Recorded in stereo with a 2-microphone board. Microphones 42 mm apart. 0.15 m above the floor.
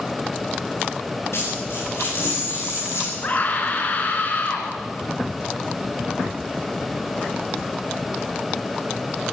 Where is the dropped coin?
80° left, 9 m.